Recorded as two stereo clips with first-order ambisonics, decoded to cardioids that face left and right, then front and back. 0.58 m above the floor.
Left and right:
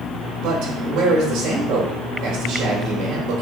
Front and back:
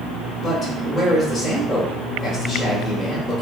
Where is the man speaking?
60° right, 1.6 m.